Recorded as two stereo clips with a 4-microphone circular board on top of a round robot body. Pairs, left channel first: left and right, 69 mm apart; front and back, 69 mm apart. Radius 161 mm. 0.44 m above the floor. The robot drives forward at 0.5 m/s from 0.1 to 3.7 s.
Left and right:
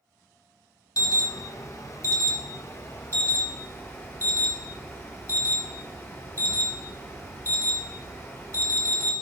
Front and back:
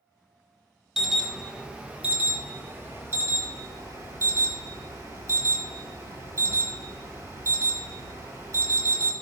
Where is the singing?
No singing in this recording.